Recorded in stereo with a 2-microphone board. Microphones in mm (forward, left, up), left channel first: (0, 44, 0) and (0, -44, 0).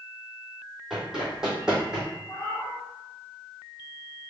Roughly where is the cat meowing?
Left.